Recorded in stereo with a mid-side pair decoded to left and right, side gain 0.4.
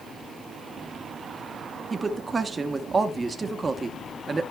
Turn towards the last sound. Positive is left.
turn(degrees=-35)